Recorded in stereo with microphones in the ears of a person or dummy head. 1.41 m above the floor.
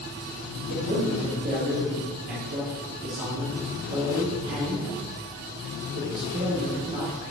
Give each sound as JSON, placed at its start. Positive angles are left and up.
{"t": 0.7, "sound": "a man speaking", "side_deg": -50, "distance_m": 1.7}